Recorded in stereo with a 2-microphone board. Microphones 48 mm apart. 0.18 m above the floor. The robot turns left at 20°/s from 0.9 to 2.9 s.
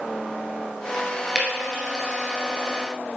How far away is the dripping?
About 2 m.